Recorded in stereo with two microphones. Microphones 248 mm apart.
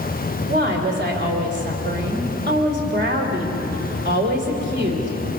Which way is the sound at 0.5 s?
40° right (ahead or behind).